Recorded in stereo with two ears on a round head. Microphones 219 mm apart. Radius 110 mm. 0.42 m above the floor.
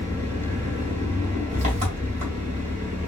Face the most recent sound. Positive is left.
turn(degrees=-30)  # may be behind; listen again after turning